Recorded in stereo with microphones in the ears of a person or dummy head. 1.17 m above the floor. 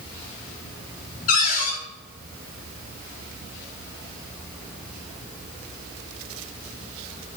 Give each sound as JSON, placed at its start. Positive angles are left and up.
{"t": 1.3, "sound": "a cupboard door", "side_deg": 50, "distance_m": 2.0}